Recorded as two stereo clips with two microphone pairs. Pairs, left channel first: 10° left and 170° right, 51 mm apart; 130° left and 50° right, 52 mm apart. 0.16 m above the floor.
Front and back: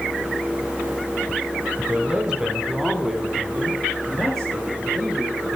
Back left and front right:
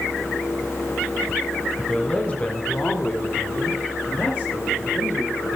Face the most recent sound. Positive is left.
turn(degrees=90)